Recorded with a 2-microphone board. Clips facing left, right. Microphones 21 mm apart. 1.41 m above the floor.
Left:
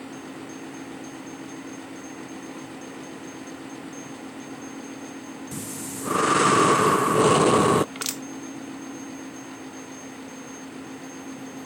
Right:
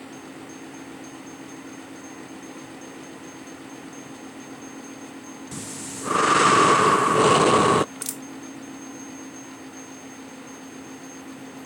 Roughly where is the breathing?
Centre.